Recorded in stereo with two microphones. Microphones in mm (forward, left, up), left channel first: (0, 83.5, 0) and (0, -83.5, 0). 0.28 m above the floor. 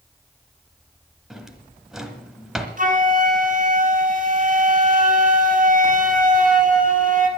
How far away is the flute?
About 2 m.